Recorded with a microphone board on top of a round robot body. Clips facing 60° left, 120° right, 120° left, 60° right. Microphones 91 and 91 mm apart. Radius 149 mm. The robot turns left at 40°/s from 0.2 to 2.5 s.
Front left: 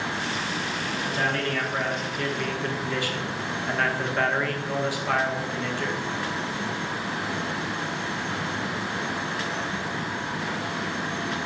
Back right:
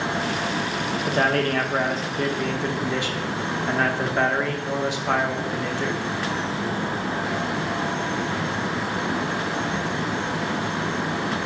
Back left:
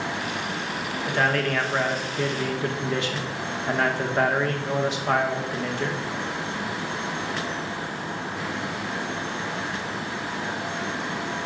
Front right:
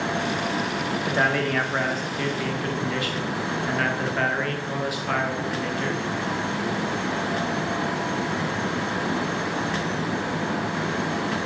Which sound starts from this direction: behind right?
A man speaking, at 1.1 s.